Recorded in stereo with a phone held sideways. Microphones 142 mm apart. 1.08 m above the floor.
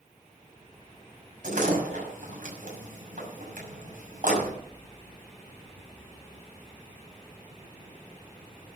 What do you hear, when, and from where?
1.4 s a door slam: 70° right (ahead or behind), 6 m